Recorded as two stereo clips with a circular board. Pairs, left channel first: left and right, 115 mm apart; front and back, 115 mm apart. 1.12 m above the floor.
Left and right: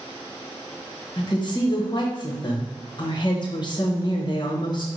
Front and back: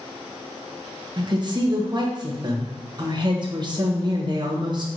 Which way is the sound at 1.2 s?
135° left.